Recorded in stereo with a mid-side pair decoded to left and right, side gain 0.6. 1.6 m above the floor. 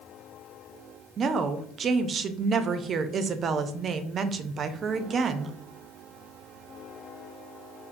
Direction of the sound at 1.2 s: 40° right.